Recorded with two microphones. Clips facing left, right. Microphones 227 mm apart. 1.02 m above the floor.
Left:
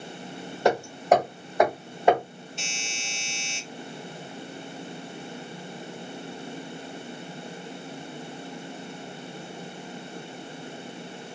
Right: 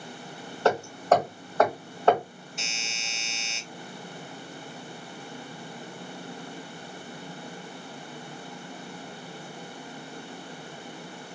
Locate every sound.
0.7 s hammering: 15° left (ahead or behind), 1.5 m
2.6 s a doorbell: 30° left (ahead or behind), 2 m